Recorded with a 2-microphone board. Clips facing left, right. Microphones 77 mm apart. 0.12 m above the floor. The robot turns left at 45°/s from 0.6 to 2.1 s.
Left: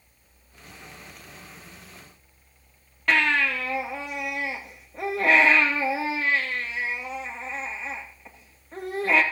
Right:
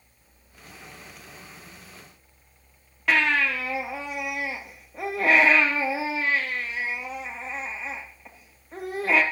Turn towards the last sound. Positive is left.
turn(degrees=-5)  # may be behind; listen again after turning